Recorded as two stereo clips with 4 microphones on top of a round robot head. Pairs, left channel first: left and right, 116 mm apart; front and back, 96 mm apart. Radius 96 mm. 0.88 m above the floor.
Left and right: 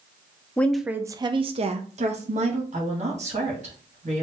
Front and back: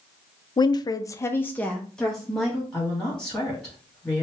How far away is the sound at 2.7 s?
About 2.5 m.